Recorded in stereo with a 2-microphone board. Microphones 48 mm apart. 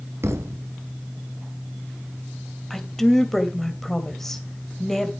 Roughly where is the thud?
Right.